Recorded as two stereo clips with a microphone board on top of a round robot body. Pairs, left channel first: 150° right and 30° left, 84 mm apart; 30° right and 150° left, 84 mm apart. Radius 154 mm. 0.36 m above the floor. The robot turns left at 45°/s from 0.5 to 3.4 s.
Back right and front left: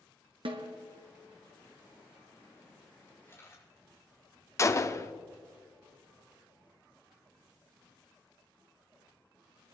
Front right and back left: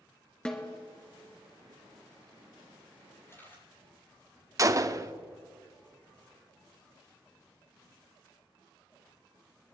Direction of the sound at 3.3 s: 90° right.